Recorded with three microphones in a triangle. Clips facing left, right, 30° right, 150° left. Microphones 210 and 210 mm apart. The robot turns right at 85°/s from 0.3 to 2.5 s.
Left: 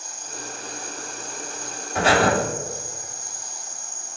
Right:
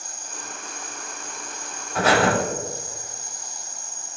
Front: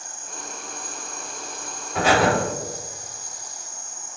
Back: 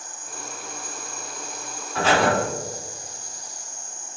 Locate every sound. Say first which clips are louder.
0.0 s an insect: left 3 dB, even; 90° right, 1.0 m; by 4.2 s 100° left, 1.0 m
1.9 s breathing: even, front 1 dB; 30° left, 1.1 m; by 2.3 s 60° left, 1.1 m